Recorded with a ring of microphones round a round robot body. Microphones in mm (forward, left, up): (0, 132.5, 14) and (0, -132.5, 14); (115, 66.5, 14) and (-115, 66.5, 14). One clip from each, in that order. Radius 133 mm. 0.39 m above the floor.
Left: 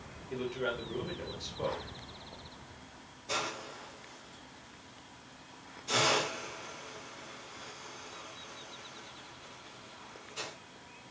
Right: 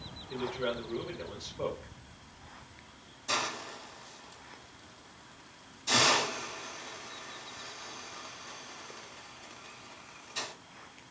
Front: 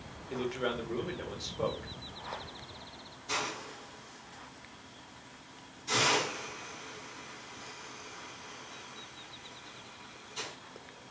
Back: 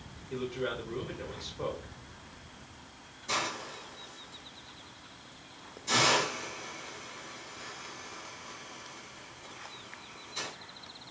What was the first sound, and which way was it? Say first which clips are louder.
A man speaking: right 1 dB, front 1 dB; straight ahead.